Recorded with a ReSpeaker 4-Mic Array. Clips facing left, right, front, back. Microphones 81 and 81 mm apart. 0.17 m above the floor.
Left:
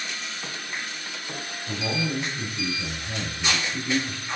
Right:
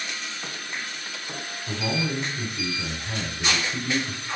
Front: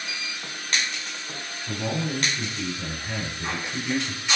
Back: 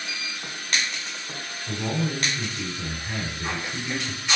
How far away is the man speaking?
About 1.3 m.